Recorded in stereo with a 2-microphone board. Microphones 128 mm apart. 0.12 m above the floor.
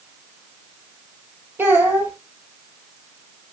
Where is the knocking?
I don't hear knocking.